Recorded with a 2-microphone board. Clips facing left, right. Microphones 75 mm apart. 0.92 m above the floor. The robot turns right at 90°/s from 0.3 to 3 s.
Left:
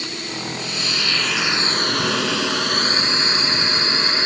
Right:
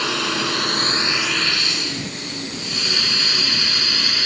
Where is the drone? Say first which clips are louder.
Right 7 dB; 85° right; by 4.3 s 25° left (ahead or behind).